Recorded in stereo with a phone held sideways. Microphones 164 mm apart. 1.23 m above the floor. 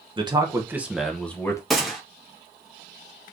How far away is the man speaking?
About 1.0 m.